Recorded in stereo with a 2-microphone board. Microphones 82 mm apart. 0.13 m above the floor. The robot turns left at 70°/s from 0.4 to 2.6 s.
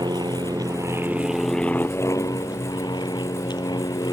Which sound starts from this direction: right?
An aircraft, at 0.0 s.